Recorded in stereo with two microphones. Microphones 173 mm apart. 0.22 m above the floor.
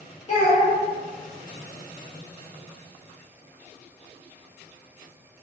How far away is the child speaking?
About 0.9 m.